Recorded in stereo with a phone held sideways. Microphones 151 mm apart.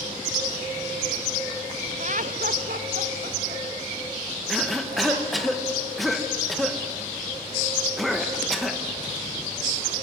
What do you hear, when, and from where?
2.0 s laughter: 50° right (ahead or behind), 0.6 m; by 5.5 s 85° right, 5 m
4.5 s a cough: centre (ahead or behind), 1.2 m